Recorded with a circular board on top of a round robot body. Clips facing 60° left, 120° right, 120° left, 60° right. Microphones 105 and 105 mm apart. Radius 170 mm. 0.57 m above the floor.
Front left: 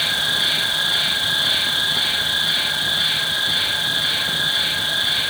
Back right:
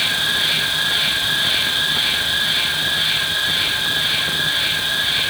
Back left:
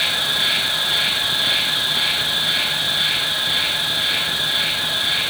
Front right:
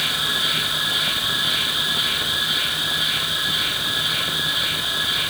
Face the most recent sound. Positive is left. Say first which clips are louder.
# back right 1 dB, back left 2 dB
turn(degrees=140)